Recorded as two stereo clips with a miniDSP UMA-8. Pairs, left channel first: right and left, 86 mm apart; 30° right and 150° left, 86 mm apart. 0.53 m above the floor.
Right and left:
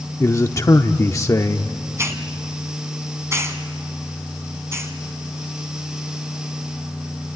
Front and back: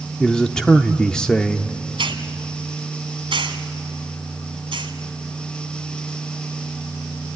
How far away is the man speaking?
About 0.8 m.